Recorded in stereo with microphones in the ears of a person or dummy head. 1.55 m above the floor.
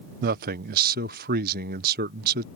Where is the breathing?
No breathing in this recording.